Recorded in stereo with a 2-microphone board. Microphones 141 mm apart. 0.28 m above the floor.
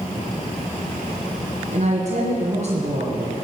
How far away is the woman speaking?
About 3 m.